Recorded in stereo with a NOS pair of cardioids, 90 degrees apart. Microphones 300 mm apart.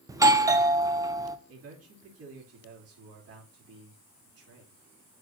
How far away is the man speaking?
About 2.5 m.